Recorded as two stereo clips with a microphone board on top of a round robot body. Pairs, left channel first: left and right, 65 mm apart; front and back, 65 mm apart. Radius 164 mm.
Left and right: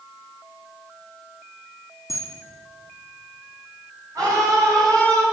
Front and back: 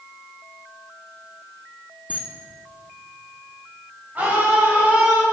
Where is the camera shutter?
115° left, 1.8 m.